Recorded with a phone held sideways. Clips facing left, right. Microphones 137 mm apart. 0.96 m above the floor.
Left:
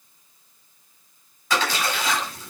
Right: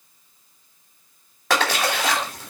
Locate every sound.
1.5 s a splash: 75° right (ahead or behind), 2.5 m